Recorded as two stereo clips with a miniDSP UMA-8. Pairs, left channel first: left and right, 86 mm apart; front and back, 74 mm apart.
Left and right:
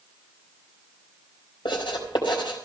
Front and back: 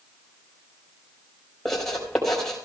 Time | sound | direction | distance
1.6 | writing | 85° left | 4.5 m